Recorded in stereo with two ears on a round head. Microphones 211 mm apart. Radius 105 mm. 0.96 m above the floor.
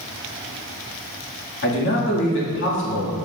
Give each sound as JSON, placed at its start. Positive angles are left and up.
{"t": 1.6, "sound": "a man speaking", "side_deg": 55, "distance_m": 2.0}